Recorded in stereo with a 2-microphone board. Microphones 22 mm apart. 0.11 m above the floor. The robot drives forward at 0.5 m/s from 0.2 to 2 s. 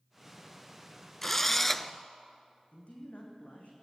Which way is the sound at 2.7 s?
70° left (ahead or behind).